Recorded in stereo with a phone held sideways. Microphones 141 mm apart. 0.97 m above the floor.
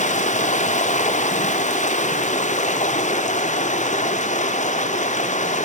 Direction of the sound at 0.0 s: 60° left (ahead or behind).